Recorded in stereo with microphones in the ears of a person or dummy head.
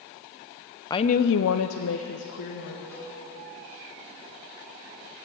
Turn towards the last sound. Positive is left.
turn(degrees=15)  # may be behind; listen again after turning